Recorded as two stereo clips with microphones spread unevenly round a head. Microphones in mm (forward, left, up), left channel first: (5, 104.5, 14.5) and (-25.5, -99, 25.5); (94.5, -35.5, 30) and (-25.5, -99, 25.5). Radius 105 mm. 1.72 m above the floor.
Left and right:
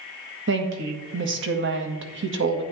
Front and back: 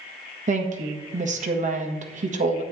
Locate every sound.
0.5 s a woman speaking: 125° right, 1.7 m